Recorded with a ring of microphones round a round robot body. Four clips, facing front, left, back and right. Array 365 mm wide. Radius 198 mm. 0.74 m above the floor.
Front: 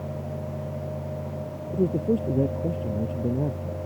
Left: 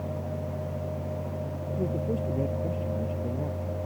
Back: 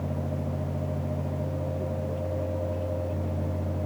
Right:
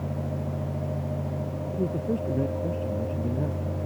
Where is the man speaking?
20° right.